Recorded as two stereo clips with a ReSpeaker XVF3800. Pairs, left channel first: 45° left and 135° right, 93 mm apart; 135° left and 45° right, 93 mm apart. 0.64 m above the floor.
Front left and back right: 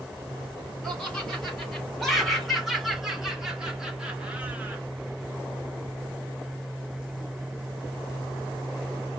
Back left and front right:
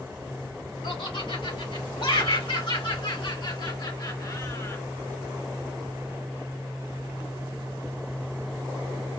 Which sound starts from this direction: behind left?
Laughter, at 0.8 s.